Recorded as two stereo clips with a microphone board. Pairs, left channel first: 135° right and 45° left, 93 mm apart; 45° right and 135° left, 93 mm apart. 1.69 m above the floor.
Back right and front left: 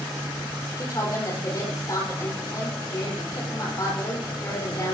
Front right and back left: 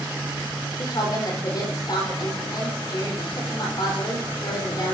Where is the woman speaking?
85° right, 6.5 m.